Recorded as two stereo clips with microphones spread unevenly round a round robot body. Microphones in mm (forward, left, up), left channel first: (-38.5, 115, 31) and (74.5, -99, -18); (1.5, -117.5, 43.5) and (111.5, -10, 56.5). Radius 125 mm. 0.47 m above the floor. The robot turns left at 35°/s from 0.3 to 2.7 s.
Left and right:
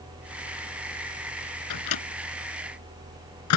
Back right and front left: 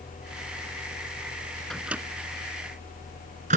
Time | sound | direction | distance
1.7 | a microwave | 135° left | ?